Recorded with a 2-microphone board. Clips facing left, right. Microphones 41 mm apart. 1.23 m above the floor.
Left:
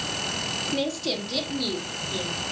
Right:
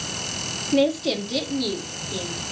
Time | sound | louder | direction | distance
0.7 | a woman speaking | right 10 dB | 25° right (ahead or behind) | 1.9 m